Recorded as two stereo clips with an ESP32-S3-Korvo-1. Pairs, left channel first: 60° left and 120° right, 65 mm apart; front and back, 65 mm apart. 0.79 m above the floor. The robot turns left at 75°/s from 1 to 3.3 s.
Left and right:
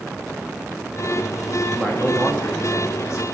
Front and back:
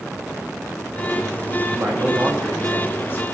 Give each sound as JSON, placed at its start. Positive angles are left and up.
{"t": 1.7, "sound": "a man speaking", "azimuth_deg": 155, "distance_m": 1.6}